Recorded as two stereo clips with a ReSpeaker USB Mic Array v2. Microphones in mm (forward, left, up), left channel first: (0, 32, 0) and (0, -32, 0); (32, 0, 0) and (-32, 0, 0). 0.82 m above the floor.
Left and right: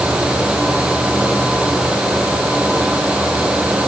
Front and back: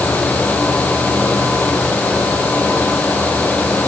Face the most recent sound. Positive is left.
No sound to turn to.